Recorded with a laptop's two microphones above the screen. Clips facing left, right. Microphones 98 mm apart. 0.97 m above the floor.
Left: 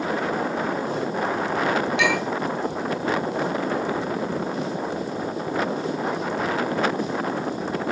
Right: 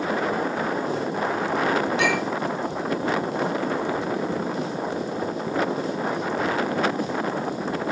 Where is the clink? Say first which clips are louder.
Even; 35° right (ahead or behind), 8 m.